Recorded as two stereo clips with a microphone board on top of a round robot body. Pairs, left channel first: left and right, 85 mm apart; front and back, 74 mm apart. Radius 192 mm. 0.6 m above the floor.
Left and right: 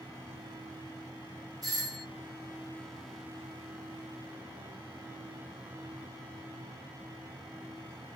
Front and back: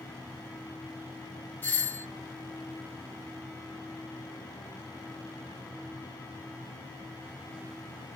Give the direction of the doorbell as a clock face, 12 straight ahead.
2 o'clock.